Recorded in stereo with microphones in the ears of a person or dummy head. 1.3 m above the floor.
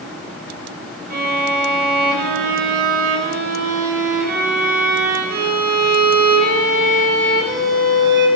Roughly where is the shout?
No shout in this recording.